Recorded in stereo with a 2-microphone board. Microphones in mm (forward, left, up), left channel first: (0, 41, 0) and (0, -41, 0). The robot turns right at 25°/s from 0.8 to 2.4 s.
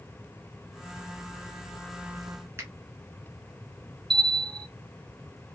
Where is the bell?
80° right, 2 m.